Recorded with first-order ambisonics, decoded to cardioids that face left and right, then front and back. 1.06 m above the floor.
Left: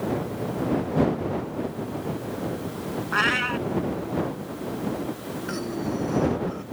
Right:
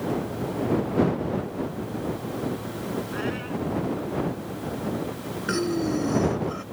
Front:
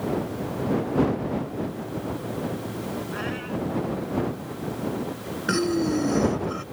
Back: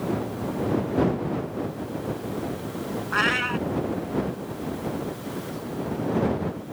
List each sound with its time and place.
3.1 s a cat meowing: 135° left
5.5 s breathing: 25° right